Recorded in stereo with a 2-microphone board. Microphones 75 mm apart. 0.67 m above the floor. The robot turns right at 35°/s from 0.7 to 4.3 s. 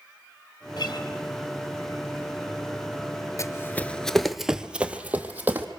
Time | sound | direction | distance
0.8 | a guitar | 60° left (ahead or behind) | 3 m
3.4 | running footsteps | 40° left (ahead or behind) | 0.8 m